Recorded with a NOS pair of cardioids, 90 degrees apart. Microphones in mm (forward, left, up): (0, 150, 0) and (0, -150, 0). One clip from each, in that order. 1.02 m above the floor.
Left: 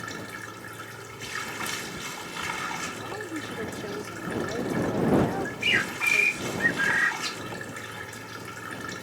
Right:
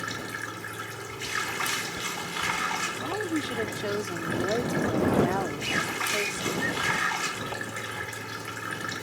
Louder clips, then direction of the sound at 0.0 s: Right 3 dB; 25° right.